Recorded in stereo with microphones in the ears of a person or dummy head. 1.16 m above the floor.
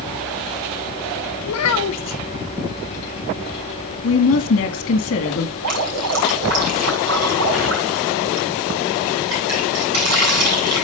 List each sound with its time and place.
1.5 s a child speaking: 85° left, 0.8 m
4.0 s a woman speaking: 80° left, 1.8 m
5.6 s dripping: 75° right (ahead or behind), 6.5 m